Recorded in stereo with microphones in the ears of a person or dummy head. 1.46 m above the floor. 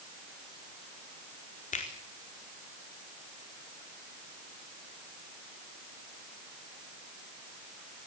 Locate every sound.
1.7 s a finger snap: 40° left (ahead or behind), 4 m